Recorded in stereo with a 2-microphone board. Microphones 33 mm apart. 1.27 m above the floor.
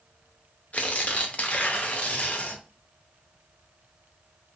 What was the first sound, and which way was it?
Tearing paper, 45° left (ahead or behind).